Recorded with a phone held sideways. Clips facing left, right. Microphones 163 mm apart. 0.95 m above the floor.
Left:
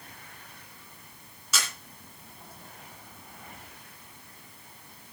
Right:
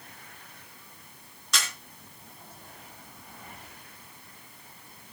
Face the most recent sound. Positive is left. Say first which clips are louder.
# even
turn(degrees=5)  # may be behind; listen again after turning